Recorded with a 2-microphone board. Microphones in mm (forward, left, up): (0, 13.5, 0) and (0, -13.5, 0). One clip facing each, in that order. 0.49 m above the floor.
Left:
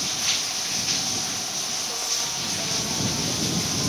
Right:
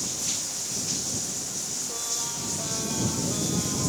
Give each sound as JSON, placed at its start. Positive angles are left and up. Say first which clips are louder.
{"t": 0.0, "sound": "running water", "louder": "left 6 dB", "side_deg": 40}